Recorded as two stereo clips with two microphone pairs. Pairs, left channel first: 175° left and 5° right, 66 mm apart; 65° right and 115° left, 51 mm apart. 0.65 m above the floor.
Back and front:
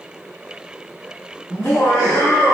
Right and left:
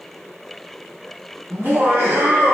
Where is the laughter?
150° left, 1.5 m; by 2.6 s 115° left, 1.0 m.